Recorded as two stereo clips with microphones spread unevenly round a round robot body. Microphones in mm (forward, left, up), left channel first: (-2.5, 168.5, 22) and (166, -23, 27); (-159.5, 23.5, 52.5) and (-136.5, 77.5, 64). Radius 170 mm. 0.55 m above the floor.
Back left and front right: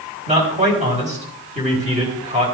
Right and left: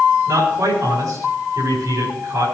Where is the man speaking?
15° left, 4.5 m.